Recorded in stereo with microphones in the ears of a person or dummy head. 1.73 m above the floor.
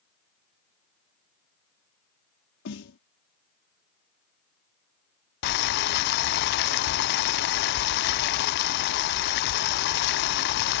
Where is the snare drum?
60° left (ahead or behind).